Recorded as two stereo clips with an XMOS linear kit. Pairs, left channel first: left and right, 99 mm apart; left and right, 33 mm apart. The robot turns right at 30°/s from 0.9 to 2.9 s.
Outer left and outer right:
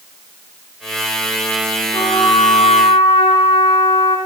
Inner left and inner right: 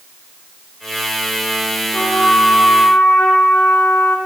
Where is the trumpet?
45° left (ahead or behind), 5 m; by 4.2 s 70° left (ahead or behind), 5 m.